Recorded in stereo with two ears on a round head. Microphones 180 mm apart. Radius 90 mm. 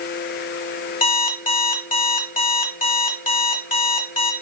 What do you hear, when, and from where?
1.0 s an alarm clock: 40° left (ahead or behind), 1.1 m